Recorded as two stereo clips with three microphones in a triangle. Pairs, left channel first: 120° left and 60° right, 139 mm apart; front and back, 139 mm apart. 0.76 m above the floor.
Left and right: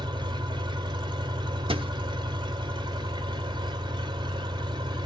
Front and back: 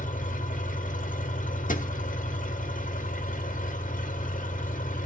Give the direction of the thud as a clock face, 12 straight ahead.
12 o'clock.